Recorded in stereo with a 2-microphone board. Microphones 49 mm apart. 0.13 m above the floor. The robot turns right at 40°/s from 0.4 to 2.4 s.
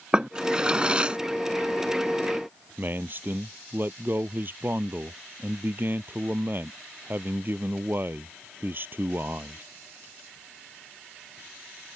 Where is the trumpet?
No trumpet in this recording.